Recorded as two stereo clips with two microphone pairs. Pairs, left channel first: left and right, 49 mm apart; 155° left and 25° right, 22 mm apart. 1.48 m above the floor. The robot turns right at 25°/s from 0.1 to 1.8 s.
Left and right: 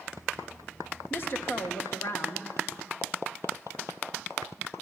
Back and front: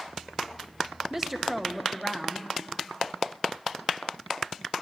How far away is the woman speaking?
About 1.6 m.